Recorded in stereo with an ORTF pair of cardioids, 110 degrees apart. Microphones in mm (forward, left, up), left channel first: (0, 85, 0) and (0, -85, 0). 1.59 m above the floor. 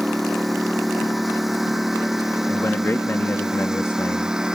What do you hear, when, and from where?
0.0 s a lawn mower: straight ahead; by 4.6 s 5° right
2.5 s a man speaking: 15° left